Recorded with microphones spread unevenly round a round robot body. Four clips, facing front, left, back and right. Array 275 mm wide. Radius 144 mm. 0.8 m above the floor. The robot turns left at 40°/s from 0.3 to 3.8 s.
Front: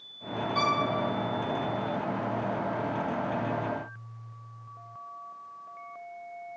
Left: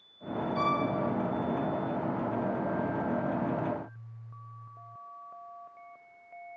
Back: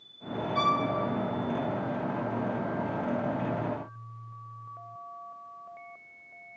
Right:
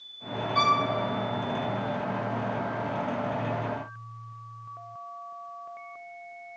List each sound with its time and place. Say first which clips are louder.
0.6 s a violin: right 6 dB, back 1 dB; 55° right, 6 m; by 0.8 s 65° right, 6 m